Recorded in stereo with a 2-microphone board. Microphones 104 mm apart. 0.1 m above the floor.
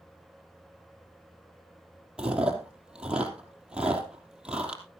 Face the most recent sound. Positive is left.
turn(degrees=-10)  # may be behind; listen again after turning